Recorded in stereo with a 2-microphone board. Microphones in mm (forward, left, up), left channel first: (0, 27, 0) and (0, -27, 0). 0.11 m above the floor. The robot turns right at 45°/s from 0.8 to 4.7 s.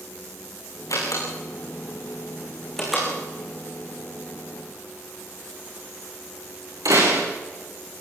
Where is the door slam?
80° left, 8.5 m; by 7.3 s 80° right, 8.5 m.